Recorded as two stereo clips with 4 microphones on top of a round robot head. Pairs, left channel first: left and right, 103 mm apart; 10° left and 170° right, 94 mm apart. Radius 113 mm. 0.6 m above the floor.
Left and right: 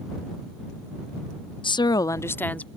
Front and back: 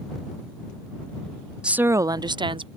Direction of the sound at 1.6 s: 110° left.